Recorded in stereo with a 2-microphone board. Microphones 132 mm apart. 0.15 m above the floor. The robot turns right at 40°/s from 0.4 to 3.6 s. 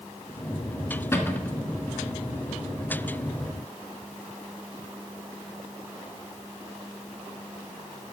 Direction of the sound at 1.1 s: 20° left (ahead or behind).